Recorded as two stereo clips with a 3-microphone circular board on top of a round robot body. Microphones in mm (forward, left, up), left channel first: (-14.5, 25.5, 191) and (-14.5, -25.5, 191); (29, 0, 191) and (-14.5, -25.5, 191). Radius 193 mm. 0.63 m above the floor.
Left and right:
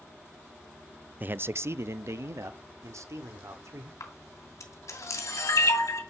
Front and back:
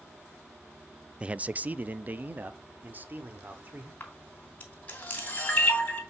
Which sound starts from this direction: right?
A man speaking, at 1.2 s.